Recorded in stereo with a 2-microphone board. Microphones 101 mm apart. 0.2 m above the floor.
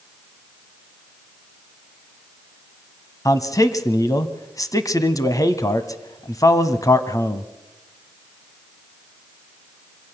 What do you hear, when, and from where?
3.2 s a man speaking: 35° left (ahead or behind), 1.2 m